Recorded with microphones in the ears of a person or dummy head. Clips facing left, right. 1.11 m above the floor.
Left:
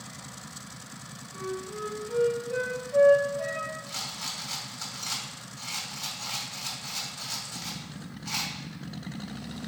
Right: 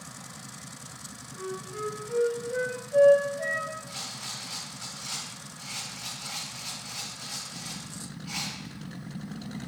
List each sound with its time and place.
1.3 s a flute: 15° right (ahead or behind), 3 m
3.9 s a rattle: 75° left (ahead or behind), 2 m